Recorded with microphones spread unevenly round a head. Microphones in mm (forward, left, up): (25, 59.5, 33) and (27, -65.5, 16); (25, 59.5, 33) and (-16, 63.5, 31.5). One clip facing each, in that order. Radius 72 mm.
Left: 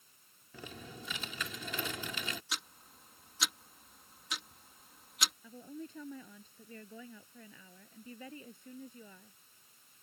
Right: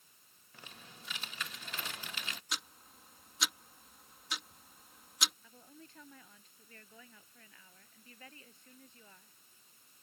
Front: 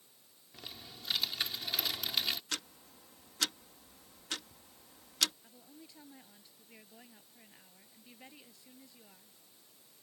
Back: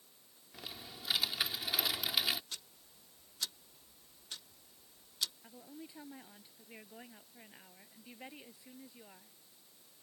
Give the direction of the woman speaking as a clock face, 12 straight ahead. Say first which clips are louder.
Left 11 dB, back 5 dB; 9 o'clock.